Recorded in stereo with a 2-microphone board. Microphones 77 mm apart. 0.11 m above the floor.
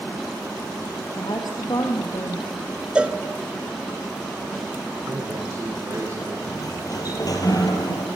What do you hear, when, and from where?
1.2 s a woman speaking: 60° left (ahead or behind), 3 m
3.0 s a cowbell: 15° right (ahead or behind), 0.7 m
5.1 s a man speaking: 40° right (ahead or behind), 5 m
6.5 s a sliding door: 55° left (ahead or behind), 3.5 m